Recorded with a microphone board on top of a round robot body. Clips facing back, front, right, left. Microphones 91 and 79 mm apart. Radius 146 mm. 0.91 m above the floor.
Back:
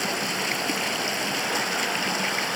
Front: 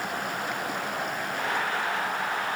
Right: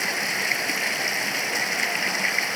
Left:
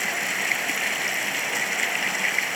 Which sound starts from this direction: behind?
Running water, at 0.0 s.